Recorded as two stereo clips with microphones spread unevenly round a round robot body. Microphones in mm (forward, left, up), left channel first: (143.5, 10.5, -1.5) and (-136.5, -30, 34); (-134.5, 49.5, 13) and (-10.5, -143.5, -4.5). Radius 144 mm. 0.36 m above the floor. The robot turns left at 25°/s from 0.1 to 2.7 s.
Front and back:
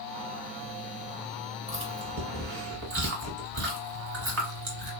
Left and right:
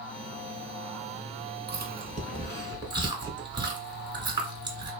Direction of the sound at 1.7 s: 105° right.